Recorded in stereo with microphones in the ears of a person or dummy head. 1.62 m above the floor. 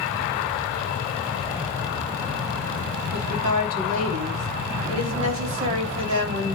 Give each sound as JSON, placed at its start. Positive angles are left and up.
{"t": 3.1, "sound": "a woman speaking", "side_deg": -45, "distance_m": 3.5}